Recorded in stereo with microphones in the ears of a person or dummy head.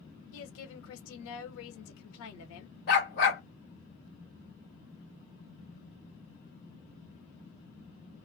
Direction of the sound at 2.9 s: 45° left (ahead or behind).